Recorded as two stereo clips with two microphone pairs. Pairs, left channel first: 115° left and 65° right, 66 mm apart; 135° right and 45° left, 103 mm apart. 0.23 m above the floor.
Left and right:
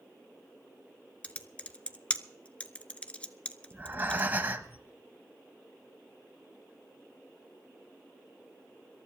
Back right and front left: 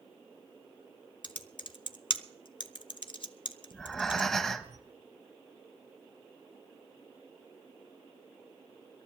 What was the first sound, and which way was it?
Typing on a keyboard, 175° right.